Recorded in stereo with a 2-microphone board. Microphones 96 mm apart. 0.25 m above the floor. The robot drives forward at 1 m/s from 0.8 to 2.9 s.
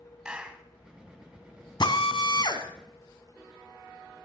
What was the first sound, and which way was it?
A clap, 10° right (ahead or behind).